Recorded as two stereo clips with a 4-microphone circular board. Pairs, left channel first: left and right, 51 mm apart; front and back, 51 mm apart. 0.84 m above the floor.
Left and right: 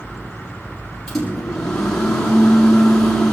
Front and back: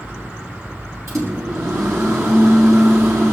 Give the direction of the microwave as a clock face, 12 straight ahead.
6 o'clock.